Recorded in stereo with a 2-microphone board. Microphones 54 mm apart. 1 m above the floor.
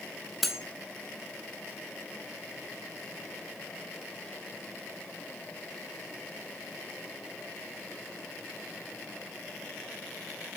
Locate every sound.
0.4 s cutlery clinking: 5° left (ahead or behind), 0.9 m